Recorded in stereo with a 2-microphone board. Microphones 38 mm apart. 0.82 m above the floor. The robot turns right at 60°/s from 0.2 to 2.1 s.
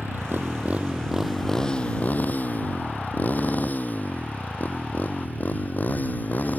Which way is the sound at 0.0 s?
75° right (ahead or behind).